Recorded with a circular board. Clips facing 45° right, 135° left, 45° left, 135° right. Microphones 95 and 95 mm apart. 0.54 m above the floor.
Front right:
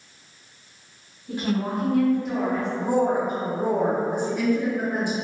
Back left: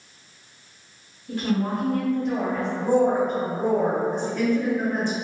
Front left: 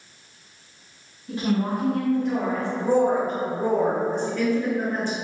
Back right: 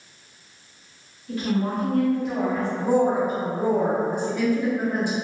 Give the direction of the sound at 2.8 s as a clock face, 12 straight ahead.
3 o'clock.